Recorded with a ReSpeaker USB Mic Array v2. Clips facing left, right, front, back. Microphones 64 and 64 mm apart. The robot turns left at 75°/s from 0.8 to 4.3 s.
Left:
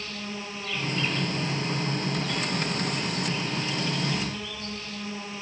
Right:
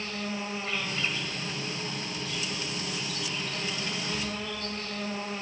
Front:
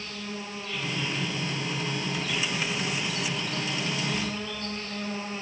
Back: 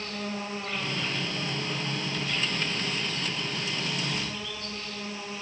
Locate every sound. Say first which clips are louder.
0.0 s an insect: right 2 dB, back 3 dB; 145° right, 2 m; by 5.4 s 50° right, 2 m